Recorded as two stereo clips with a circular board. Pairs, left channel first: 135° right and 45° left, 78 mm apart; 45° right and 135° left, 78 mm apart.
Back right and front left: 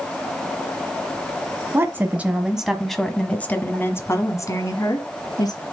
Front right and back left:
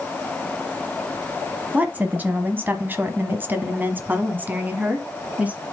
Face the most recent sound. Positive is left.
turn(degrees=-155)